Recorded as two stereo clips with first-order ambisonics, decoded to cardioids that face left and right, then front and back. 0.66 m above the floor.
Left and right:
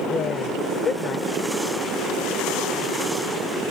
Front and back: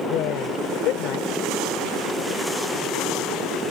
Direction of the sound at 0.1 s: 30° left.